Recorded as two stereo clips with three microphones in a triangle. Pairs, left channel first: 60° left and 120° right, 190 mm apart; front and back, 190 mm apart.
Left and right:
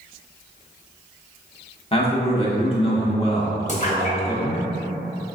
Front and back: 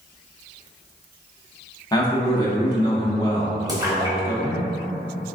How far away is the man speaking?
About 0.8 m.